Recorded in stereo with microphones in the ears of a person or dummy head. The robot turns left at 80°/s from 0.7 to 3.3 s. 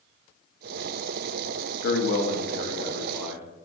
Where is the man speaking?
110° left, 0.7 m; by 3.5 s 5° right, 0.7 m.